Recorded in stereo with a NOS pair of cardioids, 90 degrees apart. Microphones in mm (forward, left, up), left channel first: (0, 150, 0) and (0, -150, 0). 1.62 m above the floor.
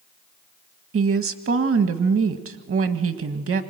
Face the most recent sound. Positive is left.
turn(degrees=-50)